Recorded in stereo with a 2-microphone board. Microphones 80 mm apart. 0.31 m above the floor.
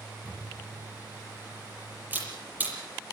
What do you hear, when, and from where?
0.2 s a camera shutter: 20° right (ahead or behind), 7.5 m